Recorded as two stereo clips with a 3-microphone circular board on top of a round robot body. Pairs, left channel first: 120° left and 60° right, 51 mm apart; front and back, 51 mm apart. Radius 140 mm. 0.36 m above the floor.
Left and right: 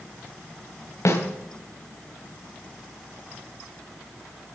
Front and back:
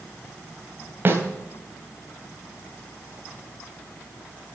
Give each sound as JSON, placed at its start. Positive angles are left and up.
{"t": 1.1, "sound": "a snare drum", "azimuth_deg": 140, "distance_m": 3.0}